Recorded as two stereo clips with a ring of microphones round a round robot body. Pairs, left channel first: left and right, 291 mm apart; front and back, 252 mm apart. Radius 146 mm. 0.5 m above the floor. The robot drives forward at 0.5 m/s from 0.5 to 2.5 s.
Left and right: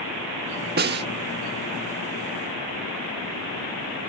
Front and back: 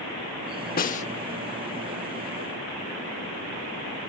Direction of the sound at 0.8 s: 45° right.